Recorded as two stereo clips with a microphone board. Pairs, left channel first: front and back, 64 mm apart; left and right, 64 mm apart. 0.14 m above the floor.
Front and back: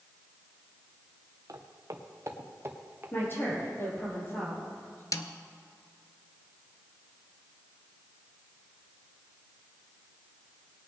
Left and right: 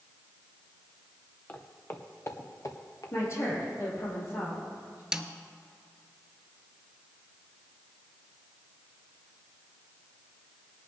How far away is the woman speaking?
About 5 m.